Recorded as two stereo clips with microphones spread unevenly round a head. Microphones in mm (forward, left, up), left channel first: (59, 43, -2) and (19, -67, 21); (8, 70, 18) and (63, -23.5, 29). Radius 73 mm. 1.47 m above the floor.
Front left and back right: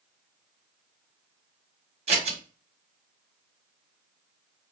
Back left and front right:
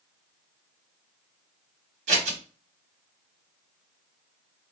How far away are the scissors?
About 1.1 m.